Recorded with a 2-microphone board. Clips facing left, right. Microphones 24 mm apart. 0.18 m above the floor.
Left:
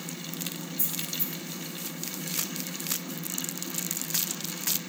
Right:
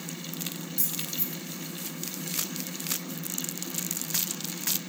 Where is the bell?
I don't hear a bell.